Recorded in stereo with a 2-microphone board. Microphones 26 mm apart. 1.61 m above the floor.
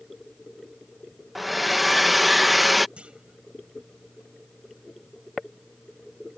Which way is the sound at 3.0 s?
45° right (ahead or behind).